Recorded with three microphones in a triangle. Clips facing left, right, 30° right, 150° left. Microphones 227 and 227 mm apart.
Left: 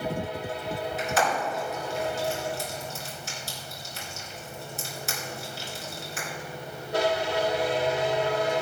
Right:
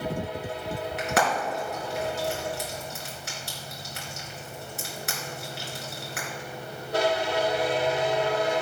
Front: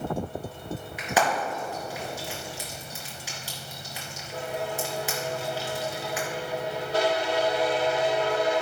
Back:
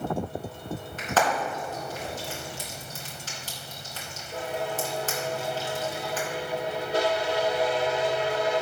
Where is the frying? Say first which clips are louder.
Right 1 dB, even; 110° right, 3.5 m.